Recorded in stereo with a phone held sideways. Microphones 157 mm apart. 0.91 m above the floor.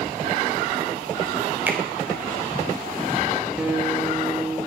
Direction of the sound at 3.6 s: 5° right (ahead or behind).